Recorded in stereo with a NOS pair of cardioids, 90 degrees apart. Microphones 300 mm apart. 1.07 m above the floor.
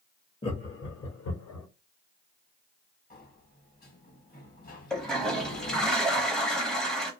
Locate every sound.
0.4 s laughter: 15° left, 0.6 m; by 1.7 s 65° left, 0.9 m
3.1 s a sliding door: 30° left, 1.0 m
4.9 s a toilet flushing: straight ahead, 0.6 m